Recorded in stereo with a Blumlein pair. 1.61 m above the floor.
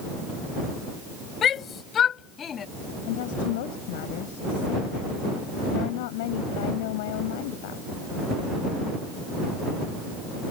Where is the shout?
25° left.